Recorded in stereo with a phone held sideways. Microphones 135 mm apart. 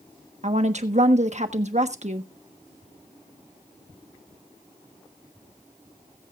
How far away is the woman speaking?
About 1.2 m.